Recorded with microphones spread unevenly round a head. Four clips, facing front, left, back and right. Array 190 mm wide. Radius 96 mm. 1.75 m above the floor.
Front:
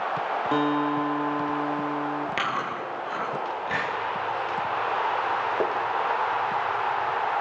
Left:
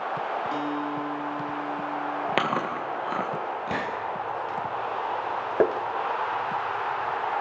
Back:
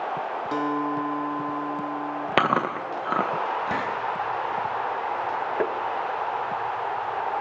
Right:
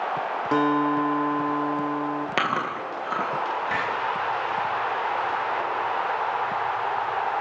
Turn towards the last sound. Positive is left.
turn(degrees=95)